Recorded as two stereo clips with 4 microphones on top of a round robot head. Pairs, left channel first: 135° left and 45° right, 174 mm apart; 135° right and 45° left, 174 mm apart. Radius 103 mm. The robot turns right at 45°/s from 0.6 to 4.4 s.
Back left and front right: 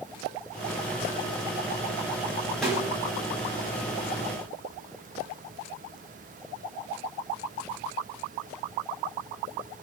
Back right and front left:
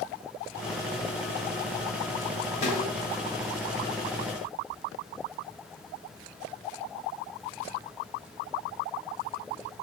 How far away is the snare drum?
About 2 m.